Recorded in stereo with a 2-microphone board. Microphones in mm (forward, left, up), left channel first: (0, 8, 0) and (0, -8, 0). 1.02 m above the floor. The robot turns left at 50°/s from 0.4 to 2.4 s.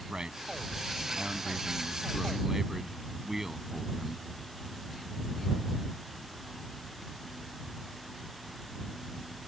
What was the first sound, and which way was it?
A man speaking, 55° right.